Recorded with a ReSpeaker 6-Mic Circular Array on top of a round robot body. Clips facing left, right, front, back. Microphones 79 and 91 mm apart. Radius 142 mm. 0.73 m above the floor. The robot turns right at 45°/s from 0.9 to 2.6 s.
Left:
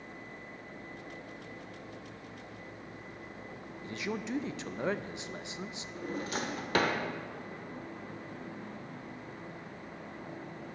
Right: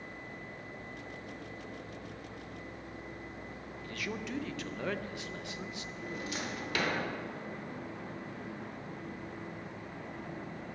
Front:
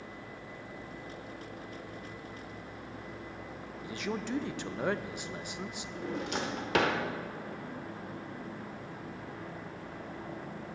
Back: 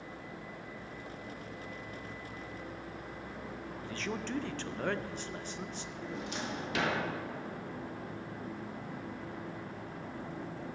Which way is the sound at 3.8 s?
60° left.